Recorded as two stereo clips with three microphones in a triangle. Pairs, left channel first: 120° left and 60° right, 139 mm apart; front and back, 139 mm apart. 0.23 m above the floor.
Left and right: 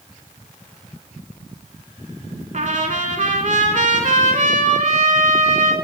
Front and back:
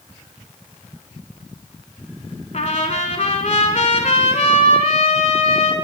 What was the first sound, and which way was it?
A trumpet, 35° right.